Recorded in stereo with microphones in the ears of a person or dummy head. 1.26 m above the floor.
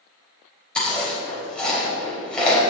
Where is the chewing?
5° right (ahead or behind), 3.5 m.